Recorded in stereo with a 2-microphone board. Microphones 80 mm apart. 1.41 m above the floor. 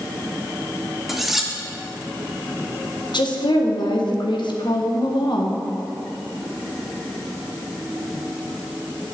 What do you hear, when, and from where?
1.1 s cutlery clinking: 5° right (ahead or behind), 0.9 m
3.1 s a woman speaking: 70° left (ahead or behind), 1.4 m